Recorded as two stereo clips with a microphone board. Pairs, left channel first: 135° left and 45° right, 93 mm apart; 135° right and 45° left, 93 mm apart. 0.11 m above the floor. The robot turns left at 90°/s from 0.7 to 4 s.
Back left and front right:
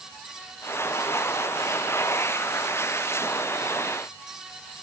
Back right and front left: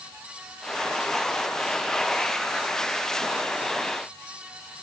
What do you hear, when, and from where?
Only background noise.